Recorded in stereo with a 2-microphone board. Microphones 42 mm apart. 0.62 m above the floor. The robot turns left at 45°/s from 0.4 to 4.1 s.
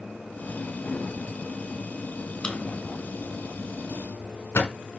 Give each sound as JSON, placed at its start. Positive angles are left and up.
{"t": 2.4, "sound": "a drawer", "side_deg": 10, "distance_m": 1.9}